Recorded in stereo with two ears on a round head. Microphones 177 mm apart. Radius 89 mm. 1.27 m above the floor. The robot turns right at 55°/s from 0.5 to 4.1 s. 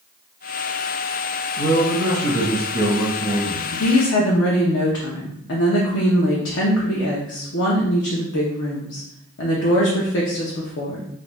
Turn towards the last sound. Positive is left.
turn(degrees=60)  # may be behind; listen again after turning